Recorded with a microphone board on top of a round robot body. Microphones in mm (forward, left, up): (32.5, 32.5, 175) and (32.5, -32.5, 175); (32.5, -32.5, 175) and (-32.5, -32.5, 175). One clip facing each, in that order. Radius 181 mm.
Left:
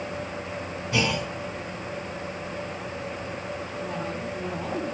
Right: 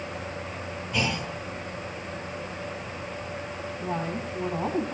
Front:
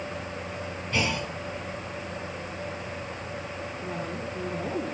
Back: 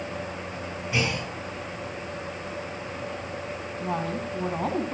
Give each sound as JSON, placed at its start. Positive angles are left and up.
{"t": 0.9, "sound": "a clunk", "azimuth_deg": 100, "distance_m": 9.5}
{"t": 3.8, "sound": "a woman speaking", "azimuth_deg": -155, "distance_m": 4.0}